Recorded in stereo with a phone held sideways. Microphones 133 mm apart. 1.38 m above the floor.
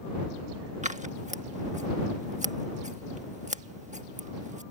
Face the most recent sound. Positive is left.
turn(degrees=-65)  # may be behind; listen again after turning